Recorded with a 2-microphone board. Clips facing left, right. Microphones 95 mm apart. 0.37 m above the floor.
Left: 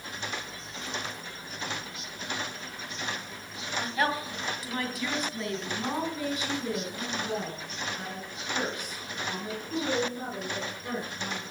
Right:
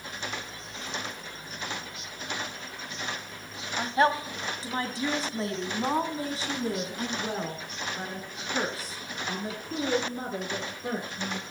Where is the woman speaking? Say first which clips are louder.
Right 5 dB; 30° right (ahead or behind), 1.9 m; by 11.5 s 35° right (ahead or behind), 5.5 m.